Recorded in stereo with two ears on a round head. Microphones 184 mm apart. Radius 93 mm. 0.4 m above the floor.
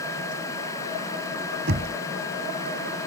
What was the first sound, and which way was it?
Knocking, 55° right (ahead or behind).